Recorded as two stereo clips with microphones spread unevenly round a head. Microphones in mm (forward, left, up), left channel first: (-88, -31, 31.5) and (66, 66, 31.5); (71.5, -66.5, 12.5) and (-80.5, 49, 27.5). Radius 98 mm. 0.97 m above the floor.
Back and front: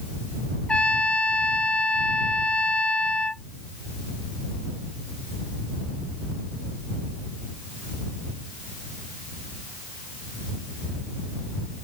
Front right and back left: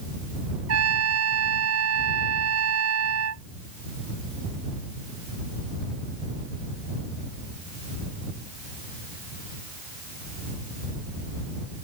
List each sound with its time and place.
0.7 s a trumpet: 130° left